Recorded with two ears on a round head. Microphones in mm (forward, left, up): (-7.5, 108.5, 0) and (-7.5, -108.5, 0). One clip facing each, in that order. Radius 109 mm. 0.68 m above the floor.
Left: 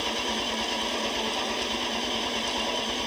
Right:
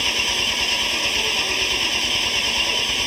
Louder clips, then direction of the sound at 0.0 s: Even; 45° right (ahead or behind).